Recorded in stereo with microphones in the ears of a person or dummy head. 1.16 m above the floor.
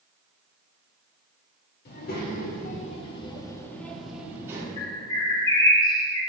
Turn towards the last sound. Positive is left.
turn(degrees=25)  # may be behind; listen again after turning